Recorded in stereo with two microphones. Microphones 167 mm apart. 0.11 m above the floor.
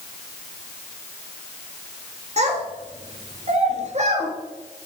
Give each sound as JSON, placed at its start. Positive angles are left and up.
{"t": 2.4, "sound": "a child speaking", "side_deg": -40, "distance_m": 1.6}